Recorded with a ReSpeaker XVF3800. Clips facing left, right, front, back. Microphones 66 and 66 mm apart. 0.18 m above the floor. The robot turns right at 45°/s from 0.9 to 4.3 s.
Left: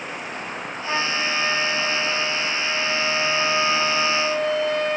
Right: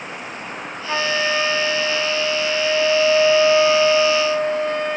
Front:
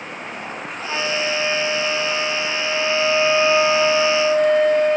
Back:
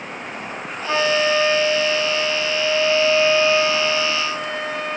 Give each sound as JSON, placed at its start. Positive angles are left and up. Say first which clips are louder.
{"t": 0.8, "sound": "a flute", "louder": "right 4 dB, back 5 dB", "azimuth_deg": 165, "distance_m": 5.0}